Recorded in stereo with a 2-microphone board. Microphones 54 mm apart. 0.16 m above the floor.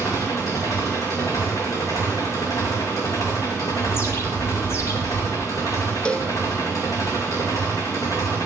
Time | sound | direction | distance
0.0 | an engine running | 75° left (ahead or behind) | 3 m
3.9 | a bird | 55° left (ahead or behind) | 2.5 m
6.0 | a cowbell | 20° left (ahead or behind) | 0.6 m